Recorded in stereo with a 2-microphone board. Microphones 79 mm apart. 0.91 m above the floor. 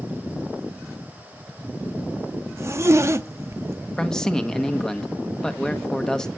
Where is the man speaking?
10° left (ahead or behind), 1.2 m.